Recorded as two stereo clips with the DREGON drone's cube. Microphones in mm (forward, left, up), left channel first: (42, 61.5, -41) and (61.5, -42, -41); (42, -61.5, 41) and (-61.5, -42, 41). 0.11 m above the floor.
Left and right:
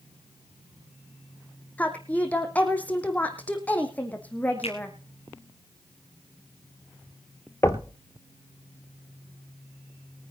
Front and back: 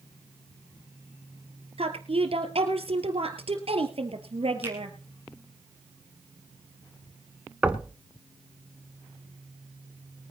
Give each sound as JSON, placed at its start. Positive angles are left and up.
{"t": 1.8, "sound": "a woman speaking", "azimuth_deg": 175, "distance_m": 3.0}
{"t": 4.6, "sound": "a finger snap", "azimuth_deg": 100, "distance_m": 3.5}
{"t": 7.6, "sound": "knocking", "azimuth_deg": 100, "distance_m": 1.0}